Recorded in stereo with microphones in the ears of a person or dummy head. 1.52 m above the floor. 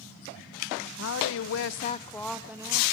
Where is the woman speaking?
65° left (ahead or behind), 1.3 m; by 2.8 s 20° right (ahead or behind), 1.4 m.